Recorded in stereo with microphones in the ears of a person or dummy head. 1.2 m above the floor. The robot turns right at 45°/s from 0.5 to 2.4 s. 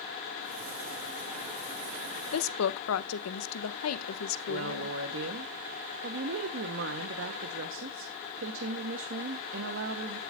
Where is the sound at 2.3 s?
85° left, 0.8 m.